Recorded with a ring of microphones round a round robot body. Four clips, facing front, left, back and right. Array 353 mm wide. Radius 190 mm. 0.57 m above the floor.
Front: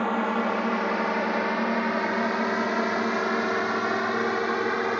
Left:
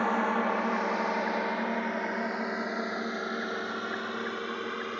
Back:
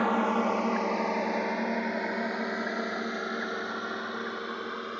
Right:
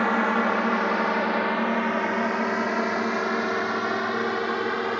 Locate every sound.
0.0 s a drone: 90° right; by 5.0 s 40° right